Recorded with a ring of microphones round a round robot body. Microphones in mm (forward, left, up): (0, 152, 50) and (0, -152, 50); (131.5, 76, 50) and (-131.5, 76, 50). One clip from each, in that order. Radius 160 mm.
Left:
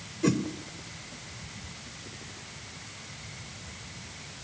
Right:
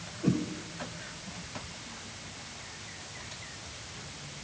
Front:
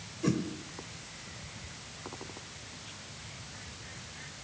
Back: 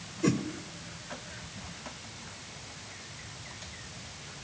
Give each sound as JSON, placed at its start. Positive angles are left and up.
{"t": 0.2, "sound": "a whoosh", "azimuth_deg": 115, "distance_m": 1.6}